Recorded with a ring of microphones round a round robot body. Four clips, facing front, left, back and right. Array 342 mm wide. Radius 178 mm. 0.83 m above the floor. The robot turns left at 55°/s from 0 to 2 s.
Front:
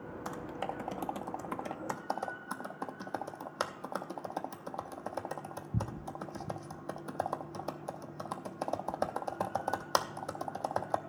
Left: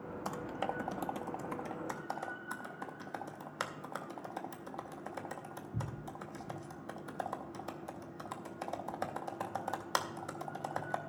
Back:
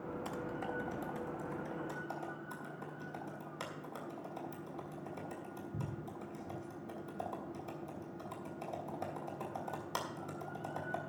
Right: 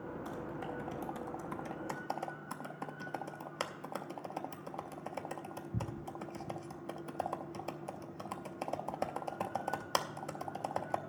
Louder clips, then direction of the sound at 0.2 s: Left 7 dB, front 5 dB; 75° left.